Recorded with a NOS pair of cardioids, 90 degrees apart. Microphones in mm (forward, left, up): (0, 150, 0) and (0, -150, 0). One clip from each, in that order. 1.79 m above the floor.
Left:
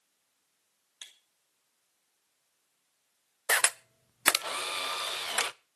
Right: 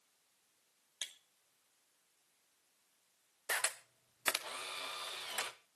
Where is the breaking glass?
35° right, 3 m.